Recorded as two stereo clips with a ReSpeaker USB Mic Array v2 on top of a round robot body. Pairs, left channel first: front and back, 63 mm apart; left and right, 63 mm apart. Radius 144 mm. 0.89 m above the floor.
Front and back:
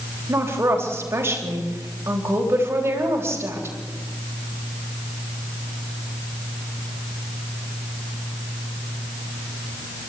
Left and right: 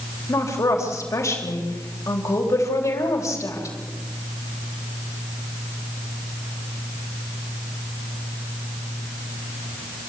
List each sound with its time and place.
0.3 s a woman speaking: 130° left, 4 m